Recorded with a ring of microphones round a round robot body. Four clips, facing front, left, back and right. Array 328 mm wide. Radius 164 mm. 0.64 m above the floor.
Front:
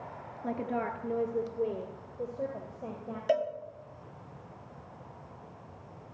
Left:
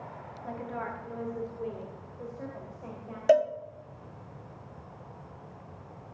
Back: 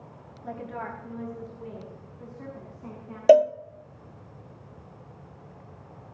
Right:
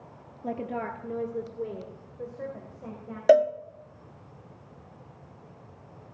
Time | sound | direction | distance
0.4 | a woman speaking | 60° right | 1.2 m
3.3 | a cowbell | 150° right | 0.7 m